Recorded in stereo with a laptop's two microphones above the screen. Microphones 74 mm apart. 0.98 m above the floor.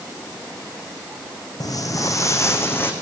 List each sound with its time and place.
1.6 s footsteps: 55° left (ahead or behind), 2.5 m; by 2.9 s 30° left (ahead or behind), 2.5 m